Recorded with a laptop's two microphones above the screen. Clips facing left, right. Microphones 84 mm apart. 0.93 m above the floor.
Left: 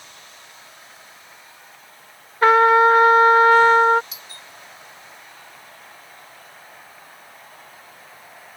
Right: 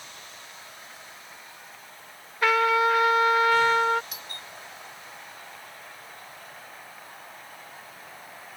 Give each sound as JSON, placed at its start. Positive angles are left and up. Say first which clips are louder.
{"t": 2.4, "sound": "a trumpet", "louder": "left 9 dB", "side_deg": 40}
{"t": 4.1, "sound": "a doorbell", "louder": "right 1 dB", "side_deg": -55}